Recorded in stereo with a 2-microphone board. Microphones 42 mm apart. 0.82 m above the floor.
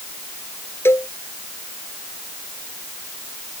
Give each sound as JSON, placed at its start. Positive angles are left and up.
{"t": 0.8, "sound": "a cowbell", "side_deg": 65}